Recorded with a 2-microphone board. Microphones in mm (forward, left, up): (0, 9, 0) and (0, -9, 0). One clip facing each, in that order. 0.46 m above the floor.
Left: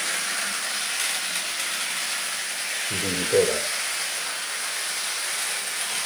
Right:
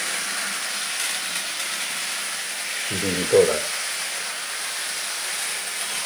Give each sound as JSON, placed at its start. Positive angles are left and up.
{"t": 2.9, "sound": "a man speaking", "side_deg": -35, "distance_m": 1.6}